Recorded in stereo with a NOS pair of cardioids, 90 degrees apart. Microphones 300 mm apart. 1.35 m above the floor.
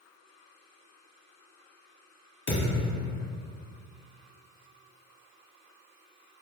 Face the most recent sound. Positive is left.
turn(degrees=60)